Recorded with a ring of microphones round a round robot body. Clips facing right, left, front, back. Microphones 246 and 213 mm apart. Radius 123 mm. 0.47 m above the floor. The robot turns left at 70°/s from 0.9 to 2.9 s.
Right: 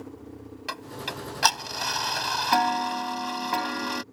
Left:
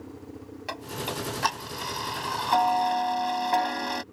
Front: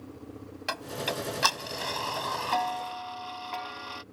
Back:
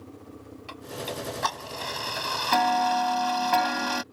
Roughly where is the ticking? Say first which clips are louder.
Left 5 dB, front 1 dB; ahead right.